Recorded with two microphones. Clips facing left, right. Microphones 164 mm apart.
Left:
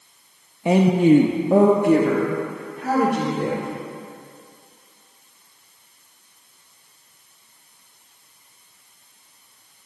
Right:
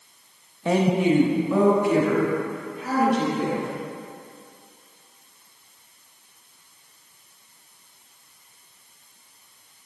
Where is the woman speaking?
15° left (ahead or behind), 0.7 m; by 3.7 s 55° left (ahead or behind), 2.5 m.